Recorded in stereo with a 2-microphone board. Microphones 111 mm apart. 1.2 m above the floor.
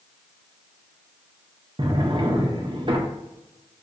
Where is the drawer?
45° right (ahead or behind), 0.5 m.